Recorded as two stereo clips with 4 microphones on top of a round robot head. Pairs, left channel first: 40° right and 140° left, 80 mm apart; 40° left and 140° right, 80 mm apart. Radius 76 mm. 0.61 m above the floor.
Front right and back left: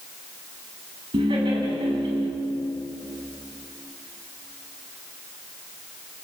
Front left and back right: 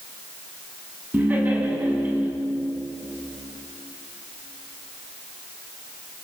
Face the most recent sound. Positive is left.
turn(degrees=150)